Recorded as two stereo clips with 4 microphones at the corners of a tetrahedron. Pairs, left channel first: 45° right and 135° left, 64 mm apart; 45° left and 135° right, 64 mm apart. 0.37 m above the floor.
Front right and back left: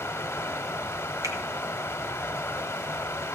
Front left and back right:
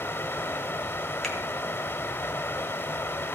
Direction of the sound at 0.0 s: Straight ahead.